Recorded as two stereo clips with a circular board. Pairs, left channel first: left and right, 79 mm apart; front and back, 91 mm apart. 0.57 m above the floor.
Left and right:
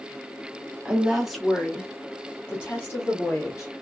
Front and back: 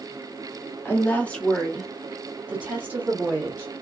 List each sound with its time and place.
0.8 s a woman speaking: 25° right, 1.0 m; by 3.7 s 130° left, 1.4 m